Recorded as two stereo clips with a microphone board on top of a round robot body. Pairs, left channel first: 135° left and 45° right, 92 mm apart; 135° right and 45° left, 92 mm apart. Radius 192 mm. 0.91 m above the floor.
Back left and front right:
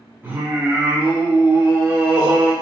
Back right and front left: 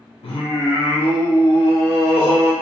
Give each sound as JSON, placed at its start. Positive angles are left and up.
{"t": 0.2, "sound": "singing", "azimuth_deg": -115, "distance_m": 1.0}